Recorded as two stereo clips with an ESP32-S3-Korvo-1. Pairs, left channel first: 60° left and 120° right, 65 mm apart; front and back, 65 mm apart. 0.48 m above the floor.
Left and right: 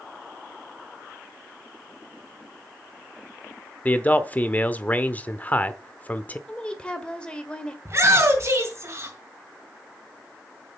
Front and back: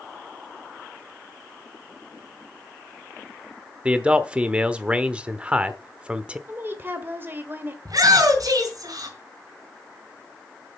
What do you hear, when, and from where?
3.9 s a man speaking: 115° left, 1.0 m
6.5 s a woman speaking: 130° left, 1.8 m
7.8 s a shout: 160° right, 4 m